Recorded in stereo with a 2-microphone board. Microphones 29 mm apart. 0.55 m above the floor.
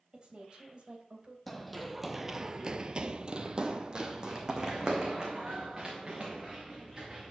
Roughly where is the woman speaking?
Right.